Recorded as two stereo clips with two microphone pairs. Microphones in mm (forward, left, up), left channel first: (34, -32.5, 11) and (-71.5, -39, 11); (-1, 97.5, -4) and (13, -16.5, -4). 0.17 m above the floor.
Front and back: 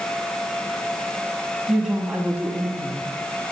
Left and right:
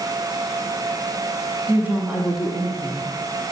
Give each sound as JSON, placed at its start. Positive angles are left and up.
{"t": 1.7, "sound": "a woman speaking", "azimuth_deg": -95, "distance_m": 1.0}